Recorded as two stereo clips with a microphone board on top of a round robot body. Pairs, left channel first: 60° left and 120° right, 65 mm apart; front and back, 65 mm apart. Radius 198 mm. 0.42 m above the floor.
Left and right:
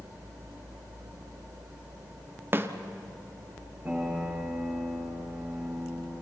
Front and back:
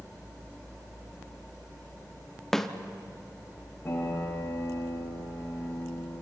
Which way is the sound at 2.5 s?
80° right.